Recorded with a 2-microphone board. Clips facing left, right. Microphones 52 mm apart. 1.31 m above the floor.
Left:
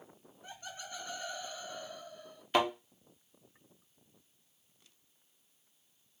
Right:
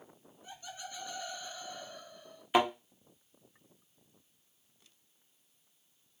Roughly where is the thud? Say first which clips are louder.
Right 2 dB; centre.